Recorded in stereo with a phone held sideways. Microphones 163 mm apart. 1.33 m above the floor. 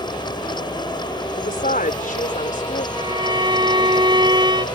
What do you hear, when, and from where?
0.0 s a fan: 30° left (ahead or behind)
1.4 s a woman speaking: 65° left (ahead or behind)
3.0 s a violin: 30° right (ahead or behind)